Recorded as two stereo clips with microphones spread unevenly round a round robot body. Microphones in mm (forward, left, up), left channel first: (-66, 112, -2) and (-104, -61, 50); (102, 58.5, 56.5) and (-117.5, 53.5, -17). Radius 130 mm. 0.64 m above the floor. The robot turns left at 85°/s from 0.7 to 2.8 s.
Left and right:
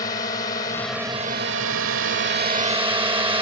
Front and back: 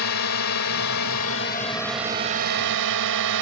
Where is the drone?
10° left; by 3.4 s 170° right.